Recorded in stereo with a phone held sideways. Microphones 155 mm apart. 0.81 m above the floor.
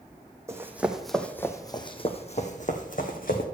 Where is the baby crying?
I don't hear a baby crying.